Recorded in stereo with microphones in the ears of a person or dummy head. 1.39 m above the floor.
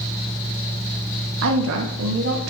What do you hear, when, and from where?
1.4 s a woman speaking: 70° right (ahead or behind), 0.8 m